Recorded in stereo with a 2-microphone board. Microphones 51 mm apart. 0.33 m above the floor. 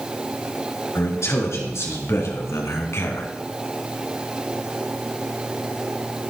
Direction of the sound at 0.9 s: 70° left (ahead or behind).